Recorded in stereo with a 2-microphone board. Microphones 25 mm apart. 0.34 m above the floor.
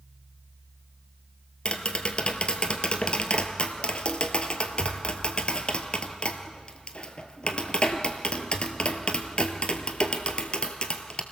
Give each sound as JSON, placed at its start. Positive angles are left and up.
{"t": 1.6, "sound": "tapping", "side_deg": 40, "distance_m": 1.4}